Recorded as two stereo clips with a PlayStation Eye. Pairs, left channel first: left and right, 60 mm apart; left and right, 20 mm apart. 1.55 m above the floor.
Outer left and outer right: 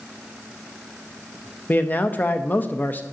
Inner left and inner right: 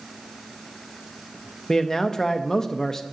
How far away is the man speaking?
About 0.6 m.